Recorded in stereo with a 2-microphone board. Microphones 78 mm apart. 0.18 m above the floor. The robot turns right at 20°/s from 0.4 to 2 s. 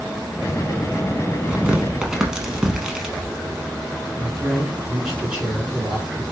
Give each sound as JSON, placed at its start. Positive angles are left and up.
{"t": 1.5, "sound": "tearing paper", "side_deg": -15, "distance_m": 0.7}
{"t": 4.2, "sound": "a man speaking", "side_deg": -10, "distance_m": 2.0}